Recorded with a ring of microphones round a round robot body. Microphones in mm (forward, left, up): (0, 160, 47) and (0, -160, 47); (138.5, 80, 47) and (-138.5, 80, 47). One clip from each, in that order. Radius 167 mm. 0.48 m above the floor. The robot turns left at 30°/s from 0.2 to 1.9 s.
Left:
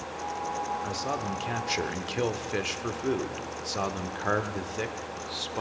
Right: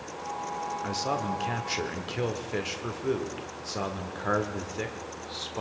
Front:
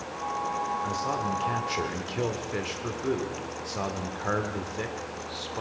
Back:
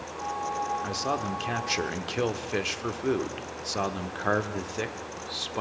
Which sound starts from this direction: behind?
A man speaking, at 0.8 s.